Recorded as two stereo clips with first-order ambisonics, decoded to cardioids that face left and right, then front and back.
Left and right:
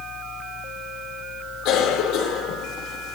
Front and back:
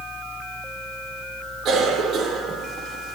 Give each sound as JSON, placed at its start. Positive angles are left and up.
{"t": 1.6, "sound": "a cough", "azimuth_deg": 120, "distance_m": 2.5}